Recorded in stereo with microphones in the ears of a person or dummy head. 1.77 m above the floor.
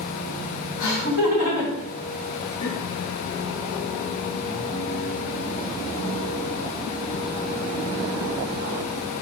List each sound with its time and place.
0.8 s laughter: 75° left (ahead or behind), 1.5 m; by 2.8 s 35° left (ahead or behind), 0.7 m